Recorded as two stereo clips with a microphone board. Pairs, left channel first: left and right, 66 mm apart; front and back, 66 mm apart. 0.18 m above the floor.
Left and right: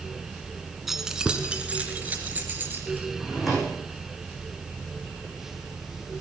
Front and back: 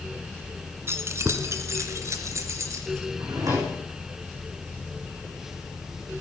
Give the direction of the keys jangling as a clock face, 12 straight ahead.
6 o'clock.